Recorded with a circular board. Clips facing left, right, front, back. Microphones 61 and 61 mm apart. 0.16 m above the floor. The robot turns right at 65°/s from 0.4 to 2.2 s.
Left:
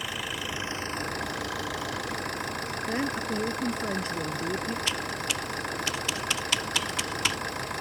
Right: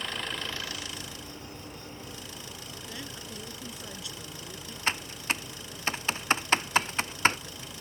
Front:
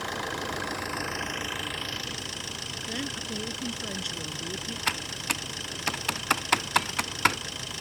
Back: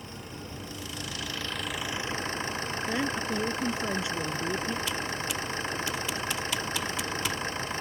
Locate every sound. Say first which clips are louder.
0.0 s an engine running: left 1 dB, front 10 dB; 10° left; by 7.8 s 125° left
2.9 s a woman speaking: left 14 dB, back 5 dB; 120° left
4.9 s typing on a keyboard: left 1 dB, even; 35° right